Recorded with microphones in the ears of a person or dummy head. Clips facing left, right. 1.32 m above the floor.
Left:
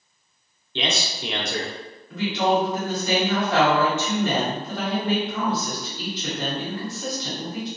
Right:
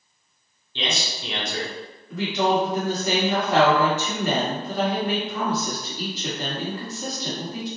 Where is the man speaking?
50° left (ahead or behind), 0.8 m.